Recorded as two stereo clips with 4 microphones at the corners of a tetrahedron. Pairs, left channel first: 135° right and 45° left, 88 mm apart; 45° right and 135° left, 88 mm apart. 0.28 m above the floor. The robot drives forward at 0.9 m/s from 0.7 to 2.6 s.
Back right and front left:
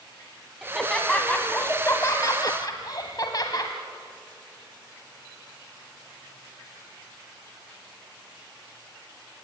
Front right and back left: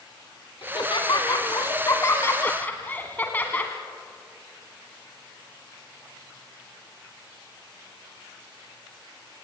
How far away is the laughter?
About 2 m.